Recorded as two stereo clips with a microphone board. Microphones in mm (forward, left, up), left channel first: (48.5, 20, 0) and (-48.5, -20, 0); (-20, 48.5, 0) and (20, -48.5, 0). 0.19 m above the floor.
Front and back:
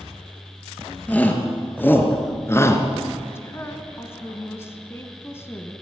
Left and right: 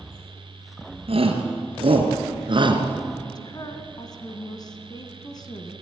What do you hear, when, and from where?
1.1 s a shout: 55° right, 3.5 m; by 2.8 s 40° right, 2.5 m
3.4 s a woman speaking: 80° left, 2 m